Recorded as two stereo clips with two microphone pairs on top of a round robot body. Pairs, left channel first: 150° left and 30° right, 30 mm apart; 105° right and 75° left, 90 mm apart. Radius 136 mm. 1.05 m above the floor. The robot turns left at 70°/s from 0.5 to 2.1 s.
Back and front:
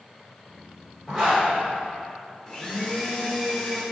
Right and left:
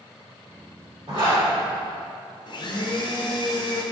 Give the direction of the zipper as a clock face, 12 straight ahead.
10 o'clock.